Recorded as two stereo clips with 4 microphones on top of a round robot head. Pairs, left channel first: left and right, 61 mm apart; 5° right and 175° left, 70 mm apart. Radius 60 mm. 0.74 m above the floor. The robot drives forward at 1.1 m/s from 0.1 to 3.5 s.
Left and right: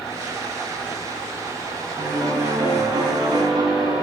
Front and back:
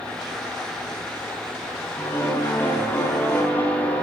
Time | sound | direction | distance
2.0 | a piano | 65° right | 10 m